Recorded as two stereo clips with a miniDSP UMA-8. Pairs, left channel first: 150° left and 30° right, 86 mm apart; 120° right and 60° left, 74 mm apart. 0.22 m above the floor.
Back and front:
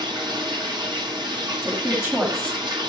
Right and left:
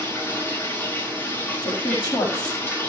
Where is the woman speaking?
95° right, 5.5 m.